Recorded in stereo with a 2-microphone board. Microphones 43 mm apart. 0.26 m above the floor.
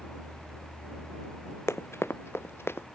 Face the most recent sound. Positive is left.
turn(degrees=65)  # may be behind; listen again after turning